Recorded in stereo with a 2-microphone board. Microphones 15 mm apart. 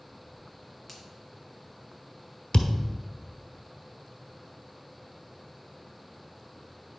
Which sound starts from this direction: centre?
A finger snap, at 0.9 s.